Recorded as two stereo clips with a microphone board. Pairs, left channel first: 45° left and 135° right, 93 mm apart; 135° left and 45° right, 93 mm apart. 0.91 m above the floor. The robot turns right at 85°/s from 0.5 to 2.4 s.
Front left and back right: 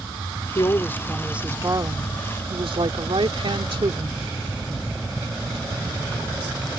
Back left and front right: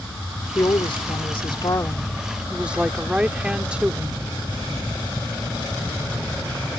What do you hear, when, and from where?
0.6 s a woman speaking: 80° left; by 4.2 s 125° right